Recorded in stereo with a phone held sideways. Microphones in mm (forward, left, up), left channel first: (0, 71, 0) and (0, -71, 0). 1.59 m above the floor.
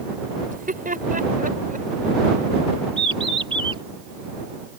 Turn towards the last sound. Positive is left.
turn(degrees=-40)  # may be behind; listen again after turning